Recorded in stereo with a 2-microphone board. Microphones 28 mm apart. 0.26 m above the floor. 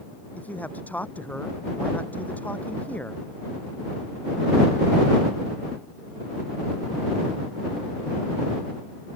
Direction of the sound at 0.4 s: 65° left (ahead or behind).